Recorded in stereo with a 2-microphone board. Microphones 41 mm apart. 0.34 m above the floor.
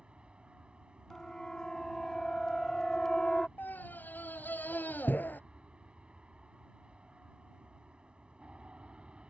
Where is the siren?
10° left (ahead or behind); by 3.5 s 15° left (ahead or behind).